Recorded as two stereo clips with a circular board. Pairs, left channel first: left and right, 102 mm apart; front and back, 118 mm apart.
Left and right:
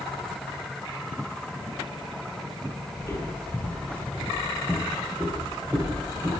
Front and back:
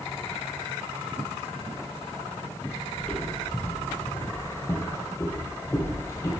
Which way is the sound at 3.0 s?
70° left.